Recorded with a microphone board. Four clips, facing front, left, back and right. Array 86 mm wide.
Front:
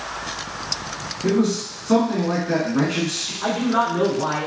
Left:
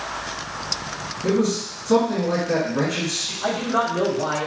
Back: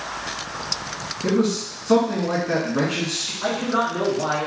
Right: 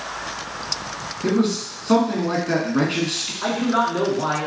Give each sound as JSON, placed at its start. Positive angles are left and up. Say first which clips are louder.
{"t": 1.2, "sound": "a man speaking", "louder": "right 1 dB, front 1 dB", "azimuth_deg": -90, "distance_m": 1.4}
{"t": 3.4, "sound": "a man speaking", "louder": "right 2 dB, front 2 dB", "azimuth_deg": -85, "distance_m": 1.7}